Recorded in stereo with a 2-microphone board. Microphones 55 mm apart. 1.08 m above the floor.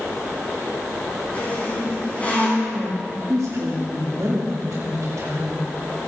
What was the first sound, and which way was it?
A squeak, 25° left (ahead or behind).